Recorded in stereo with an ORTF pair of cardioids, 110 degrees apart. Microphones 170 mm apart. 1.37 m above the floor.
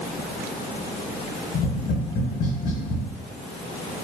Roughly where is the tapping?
Ahead left.